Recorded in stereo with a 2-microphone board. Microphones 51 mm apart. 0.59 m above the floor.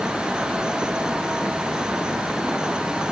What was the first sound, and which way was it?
Only background noise.